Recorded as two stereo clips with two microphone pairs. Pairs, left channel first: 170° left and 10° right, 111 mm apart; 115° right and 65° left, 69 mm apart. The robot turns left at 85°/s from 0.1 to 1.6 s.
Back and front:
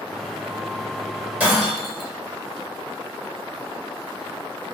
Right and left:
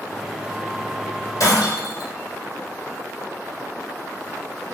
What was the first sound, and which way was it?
Breaking glass, 85° right.